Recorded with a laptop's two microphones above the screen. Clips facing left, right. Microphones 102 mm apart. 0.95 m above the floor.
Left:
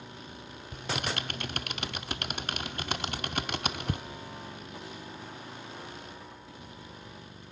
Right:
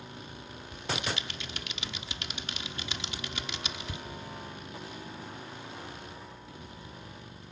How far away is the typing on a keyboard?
About 0.7 m.